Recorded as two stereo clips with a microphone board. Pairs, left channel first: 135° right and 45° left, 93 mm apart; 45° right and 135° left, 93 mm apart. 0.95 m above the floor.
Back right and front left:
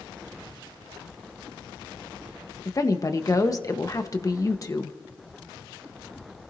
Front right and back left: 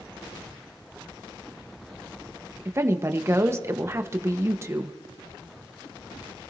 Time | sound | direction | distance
2.6 | a woman speaking | 175° right | 1.1 m